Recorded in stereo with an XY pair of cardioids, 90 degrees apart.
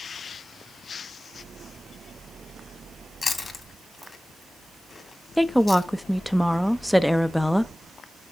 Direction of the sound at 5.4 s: 5° left.